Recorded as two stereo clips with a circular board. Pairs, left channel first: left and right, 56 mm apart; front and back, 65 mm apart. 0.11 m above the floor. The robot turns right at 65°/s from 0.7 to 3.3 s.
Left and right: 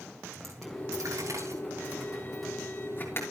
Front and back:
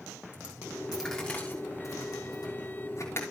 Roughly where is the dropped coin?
Right.